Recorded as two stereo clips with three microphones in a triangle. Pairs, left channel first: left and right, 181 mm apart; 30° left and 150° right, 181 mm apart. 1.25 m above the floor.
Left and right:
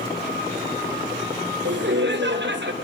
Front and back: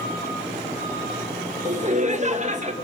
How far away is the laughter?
About 1.6 m.